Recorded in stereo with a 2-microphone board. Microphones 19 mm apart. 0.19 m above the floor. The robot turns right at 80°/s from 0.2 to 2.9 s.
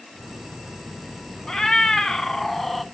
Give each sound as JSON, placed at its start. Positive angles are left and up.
{"t": 1.5, "sound": "a cat meowing", "azimuth_deg": 60, "distance_m": 0.8}